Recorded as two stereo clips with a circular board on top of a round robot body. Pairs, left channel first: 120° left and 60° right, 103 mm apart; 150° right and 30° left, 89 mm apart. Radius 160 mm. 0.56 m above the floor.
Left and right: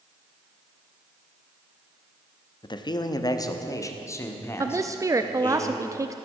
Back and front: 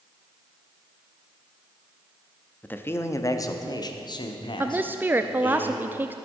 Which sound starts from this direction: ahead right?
A woman speaking, at 4.6 s.